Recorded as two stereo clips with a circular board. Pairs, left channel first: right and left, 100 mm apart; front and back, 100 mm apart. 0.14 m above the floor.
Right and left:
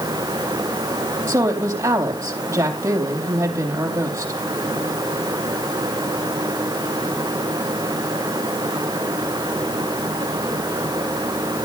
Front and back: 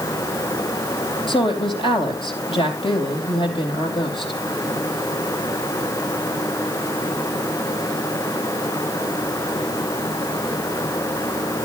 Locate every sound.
1.3 s a woman speaking: 30° left, 3.5 m